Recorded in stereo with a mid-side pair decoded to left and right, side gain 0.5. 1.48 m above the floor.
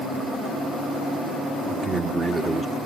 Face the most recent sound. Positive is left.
turn(degrees=-30)